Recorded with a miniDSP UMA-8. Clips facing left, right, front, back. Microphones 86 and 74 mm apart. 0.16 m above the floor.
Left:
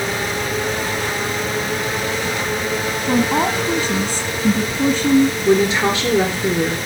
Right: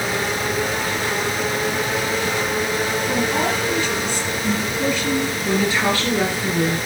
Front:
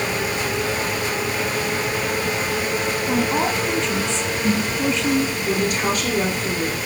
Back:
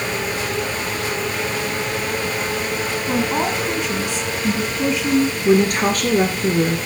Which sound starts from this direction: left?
A woman speaking, at 3.1 s.